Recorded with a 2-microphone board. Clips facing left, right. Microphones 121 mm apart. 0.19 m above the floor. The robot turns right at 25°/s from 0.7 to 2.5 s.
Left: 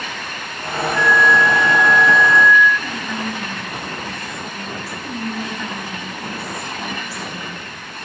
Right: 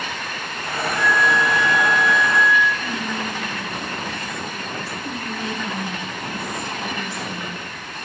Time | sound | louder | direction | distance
0.9 | a flute | left 4 dB | 60° right | 3.5 m
2.8 | whispering | even | 40° right (ahead or behind) | 2.5 m
5.0 | whispering | left 4 dB | 5° left (ahead or behind) | 1.1 m